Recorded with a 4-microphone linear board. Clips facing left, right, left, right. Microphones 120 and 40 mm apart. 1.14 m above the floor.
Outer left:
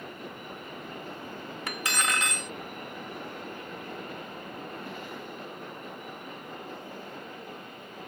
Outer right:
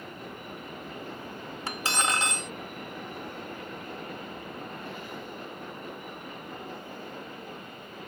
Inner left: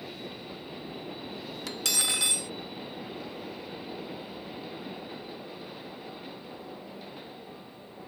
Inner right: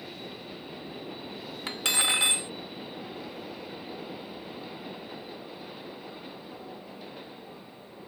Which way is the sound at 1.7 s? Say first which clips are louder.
Outer right 2 dB, inner right 4 dB; 30° right (ahead or behind).